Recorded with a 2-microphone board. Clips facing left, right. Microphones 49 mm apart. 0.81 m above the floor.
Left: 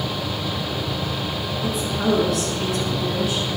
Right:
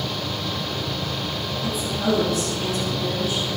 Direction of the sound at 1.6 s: 80° left.